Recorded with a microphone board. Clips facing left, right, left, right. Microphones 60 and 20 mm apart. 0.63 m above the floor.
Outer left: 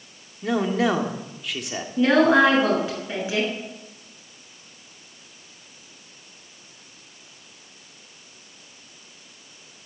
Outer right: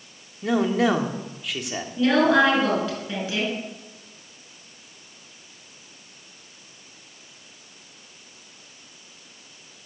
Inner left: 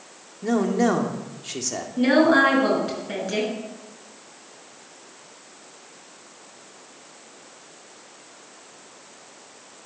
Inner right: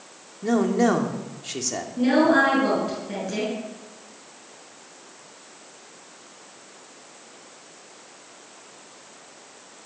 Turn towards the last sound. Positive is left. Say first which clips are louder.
# outer left 2 dB, inner left 1 dB
turn(degrees=20)  # may be behind; listen again after turning